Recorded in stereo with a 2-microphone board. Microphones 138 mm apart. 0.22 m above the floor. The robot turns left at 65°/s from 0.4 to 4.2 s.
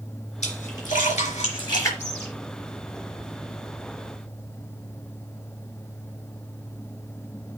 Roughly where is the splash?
Left.